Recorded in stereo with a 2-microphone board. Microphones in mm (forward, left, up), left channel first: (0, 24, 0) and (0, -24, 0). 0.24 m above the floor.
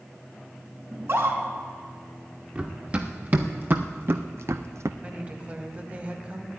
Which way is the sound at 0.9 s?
55° right (ahead or behind).